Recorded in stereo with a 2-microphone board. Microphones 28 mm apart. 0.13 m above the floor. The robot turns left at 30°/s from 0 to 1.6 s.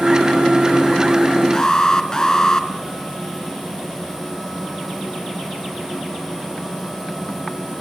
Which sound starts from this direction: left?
An alarm, at 1.5 s.